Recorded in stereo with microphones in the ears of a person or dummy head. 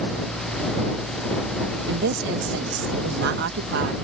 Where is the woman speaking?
70° right (ahead or behind).